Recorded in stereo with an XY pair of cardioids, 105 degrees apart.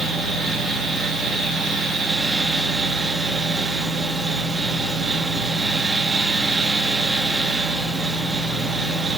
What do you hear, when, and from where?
0.0 s a fan: 50° right, 0.9 m